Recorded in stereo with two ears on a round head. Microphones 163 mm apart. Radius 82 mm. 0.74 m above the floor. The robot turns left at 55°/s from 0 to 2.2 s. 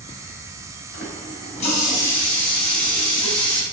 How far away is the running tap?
About 2.5 m.